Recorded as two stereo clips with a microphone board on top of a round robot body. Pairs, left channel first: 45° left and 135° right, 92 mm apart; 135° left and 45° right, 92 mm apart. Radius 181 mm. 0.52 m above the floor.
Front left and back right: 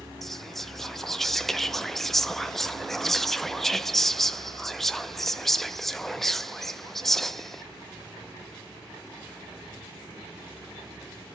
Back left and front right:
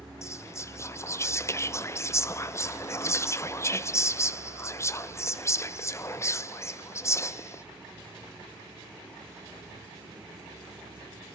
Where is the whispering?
130° left, 0.9 m.